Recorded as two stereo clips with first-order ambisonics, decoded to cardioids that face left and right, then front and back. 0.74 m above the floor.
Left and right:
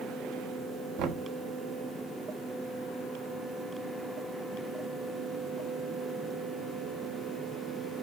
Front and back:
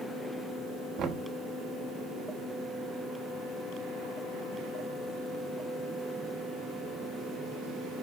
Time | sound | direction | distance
1.0 | knocking | 125° right | 1.3 m